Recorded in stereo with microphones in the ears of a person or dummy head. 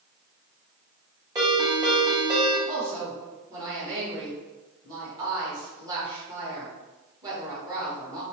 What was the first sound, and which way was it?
A ringtone, 20° right (ahead or behind).